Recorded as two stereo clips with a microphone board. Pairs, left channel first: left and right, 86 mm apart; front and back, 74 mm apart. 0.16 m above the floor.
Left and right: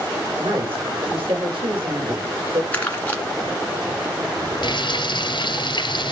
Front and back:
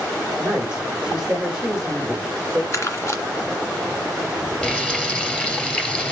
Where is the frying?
75° left, 1.7 m.